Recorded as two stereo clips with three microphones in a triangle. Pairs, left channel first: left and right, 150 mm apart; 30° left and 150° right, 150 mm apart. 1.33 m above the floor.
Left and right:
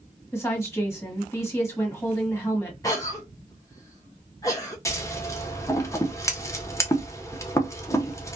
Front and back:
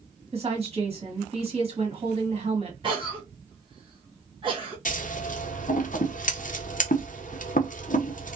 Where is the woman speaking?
165° left, 1.3 m.